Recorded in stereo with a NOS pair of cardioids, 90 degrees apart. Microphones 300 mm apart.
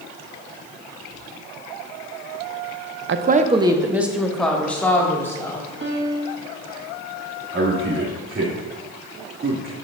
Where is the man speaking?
45° right, 2.5 m.